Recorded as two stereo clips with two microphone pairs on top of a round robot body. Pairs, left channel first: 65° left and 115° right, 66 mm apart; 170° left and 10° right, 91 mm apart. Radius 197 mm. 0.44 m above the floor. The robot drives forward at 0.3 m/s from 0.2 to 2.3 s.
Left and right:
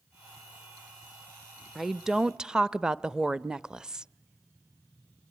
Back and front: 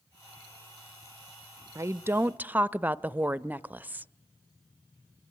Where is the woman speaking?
35° right, 0.8 m; by 4.1 s 60° right, 0.7 m.